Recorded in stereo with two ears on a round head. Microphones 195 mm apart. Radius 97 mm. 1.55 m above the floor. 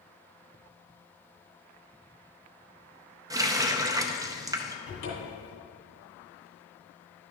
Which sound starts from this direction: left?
A cupboard door, at 4.9 s.